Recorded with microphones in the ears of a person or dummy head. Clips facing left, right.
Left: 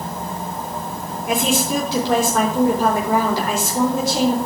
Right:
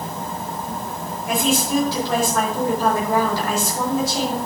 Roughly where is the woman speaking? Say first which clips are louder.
Even; left.